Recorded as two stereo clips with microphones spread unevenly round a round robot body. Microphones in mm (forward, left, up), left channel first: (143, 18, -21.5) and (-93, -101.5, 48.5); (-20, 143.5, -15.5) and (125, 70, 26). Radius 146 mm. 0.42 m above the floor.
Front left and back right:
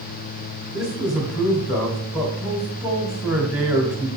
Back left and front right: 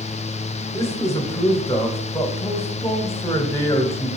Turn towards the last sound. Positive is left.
turn(degrees=105)